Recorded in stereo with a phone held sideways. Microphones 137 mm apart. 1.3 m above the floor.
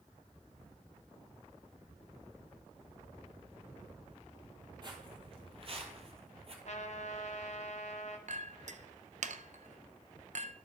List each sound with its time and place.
4.8 s footsteps: 35° right (ahead or behind), 2 m; by 6.5 s 45° right (ahead or behind), 1.8 m
6.7 s a trumpet: 55° left (ahead or behind), 1.0 m
8.3 s a clink: 60° right (ahead or behind), 0.5 m